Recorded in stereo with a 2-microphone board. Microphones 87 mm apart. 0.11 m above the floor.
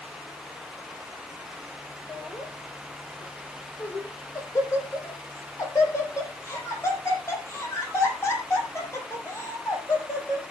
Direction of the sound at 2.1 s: 30° left (ahead or behind).